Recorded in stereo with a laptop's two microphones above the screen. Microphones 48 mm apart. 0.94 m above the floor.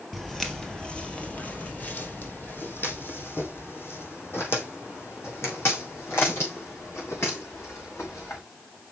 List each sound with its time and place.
0.1 s footsteps: centre (ahead or behind), 1.2 m; by 8.4 s 65° left (ahead or behind), 5.5 m